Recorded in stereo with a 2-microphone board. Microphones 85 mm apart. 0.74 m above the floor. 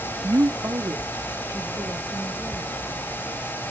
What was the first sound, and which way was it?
A woman speaking, 50° right (ahead or behind).